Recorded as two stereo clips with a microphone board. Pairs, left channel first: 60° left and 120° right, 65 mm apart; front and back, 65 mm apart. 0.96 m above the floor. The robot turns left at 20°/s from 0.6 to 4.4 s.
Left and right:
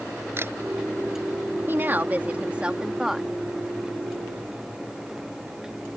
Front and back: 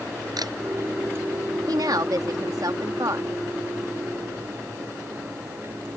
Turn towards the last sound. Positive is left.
turn(degrees=130)